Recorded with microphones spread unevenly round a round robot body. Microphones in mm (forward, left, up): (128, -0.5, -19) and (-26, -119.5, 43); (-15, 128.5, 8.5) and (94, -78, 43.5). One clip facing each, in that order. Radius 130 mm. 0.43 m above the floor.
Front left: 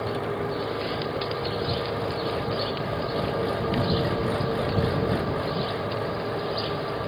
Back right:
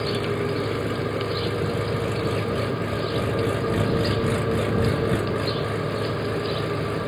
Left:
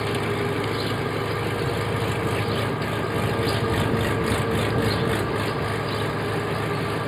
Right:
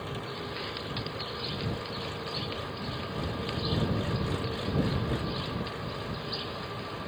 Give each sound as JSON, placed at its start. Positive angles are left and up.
{"t": 0.0, "sound": "an engine running", "azimuth_deg": 150}